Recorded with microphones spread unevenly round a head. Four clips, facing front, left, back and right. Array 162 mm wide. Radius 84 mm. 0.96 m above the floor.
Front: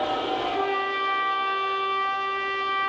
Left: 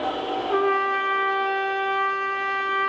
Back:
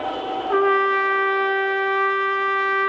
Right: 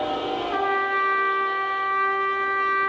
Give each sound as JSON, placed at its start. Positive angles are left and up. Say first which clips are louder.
{"t": 0.5, "sound": "a trumpet", "louder": "left 3 dB, back 8 dB", "azimuth_deg": 155, "distance_m": 1.5}